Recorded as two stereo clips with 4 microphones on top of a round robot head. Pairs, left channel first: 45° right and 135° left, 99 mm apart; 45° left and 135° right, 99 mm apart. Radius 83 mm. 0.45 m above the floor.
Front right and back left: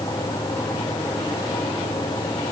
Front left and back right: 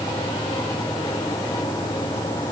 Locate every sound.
Only background noise.